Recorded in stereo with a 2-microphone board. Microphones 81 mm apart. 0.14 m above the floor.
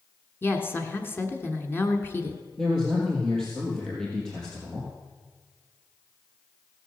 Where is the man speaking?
10° left (ahead or behind), 3.5 m.